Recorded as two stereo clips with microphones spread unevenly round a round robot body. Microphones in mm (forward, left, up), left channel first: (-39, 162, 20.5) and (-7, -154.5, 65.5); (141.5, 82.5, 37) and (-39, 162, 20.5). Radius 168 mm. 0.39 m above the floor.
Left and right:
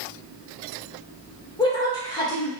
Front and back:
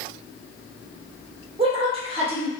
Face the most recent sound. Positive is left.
turn(degrees=150)